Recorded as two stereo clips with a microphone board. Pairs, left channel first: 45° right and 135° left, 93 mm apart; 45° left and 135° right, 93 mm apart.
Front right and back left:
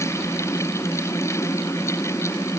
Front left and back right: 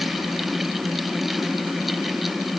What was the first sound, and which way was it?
Only background noise.